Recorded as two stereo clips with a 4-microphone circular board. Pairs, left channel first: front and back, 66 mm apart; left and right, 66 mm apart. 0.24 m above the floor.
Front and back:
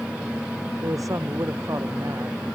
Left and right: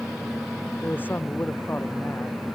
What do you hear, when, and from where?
0.8 s a man speaking: 150° left